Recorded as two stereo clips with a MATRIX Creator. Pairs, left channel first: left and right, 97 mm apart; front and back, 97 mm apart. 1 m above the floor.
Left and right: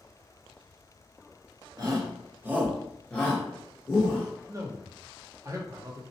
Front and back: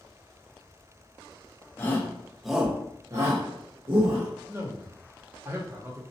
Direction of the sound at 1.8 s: 60° right.